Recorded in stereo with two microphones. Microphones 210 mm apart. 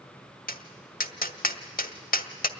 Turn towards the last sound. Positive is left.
turn(degrees=45)  # may be behind; listen again after turning